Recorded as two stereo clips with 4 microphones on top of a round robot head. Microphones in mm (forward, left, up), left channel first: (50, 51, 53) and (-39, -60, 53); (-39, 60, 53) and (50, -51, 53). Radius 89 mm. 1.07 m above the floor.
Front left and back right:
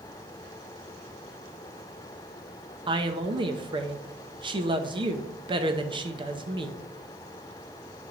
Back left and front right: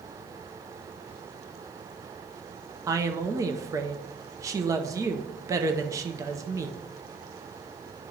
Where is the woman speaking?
105° right, 0.8 m.